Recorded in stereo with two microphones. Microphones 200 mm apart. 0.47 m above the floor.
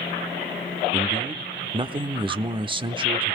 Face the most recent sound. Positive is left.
turn(degrees=-25)  # may be behind; listen again after turning